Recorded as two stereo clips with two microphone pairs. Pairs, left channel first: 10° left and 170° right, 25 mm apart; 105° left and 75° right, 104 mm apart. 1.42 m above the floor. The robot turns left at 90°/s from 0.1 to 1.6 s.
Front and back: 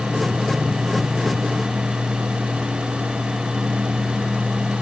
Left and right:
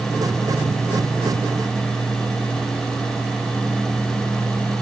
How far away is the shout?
No shout in this recording.